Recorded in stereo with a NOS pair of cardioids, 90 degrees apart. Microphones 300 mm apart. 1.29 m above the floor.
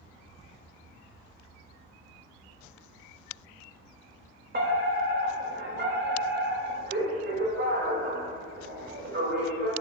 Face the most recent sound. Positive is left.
turn(degrees=-40)